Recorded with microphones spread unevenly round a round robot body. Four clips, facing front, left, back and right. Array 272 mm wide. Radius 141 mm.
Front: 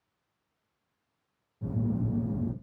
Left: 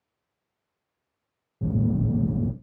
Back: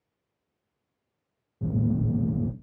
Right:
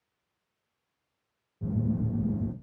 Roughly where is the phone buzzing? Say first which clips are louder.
Left 5 dB, back 4 dB; left.